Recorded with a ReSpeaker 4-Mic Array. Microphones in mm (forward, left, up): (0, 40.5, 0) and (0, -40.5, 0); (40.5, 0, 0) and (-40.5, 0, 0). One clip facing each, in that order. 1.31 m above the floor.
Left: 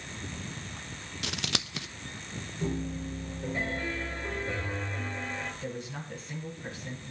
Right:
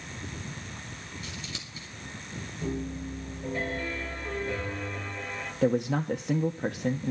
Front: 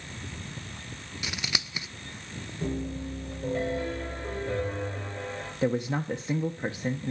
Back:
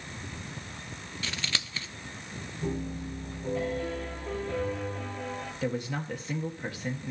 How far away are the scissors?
About 0.7 m.